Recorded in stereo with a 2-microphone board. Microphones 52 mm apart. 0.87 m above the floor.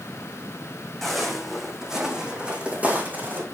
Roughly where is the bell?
I don't hear a bell.